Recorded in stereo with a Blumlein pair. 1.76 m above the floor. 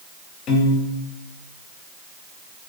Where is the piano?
30° left, 0.6 m.